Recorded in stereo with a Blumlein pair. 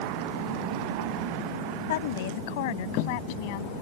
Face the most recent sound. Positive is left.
turn(degrees=45)